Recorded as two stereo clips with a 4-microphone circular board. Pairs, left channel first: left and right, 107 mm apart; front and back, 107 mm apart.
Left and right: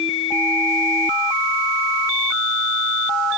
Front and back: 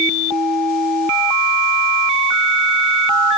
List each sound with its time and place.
Only background noise.